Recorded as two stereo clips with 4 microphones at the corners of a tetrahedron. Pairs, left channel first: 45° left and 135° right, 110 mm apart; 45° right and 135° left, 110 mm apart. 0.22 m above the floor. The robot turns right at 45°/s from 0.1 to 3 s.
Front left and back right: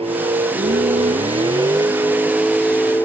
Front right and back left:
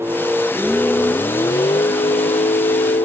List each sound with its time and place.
0.0 s a vehicle: 160° right; by 3.1 s 30° right